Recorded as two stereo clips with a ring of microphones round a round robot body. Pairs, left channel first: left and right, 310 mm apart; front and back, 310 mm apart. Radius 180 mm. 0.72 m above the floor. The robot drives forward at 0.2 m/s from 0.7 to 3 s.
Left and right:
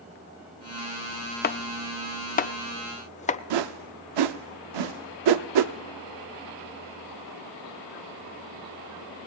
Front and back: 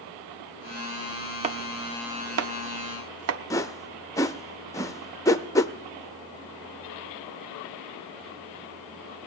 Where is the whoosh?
80° right, 0.7 m.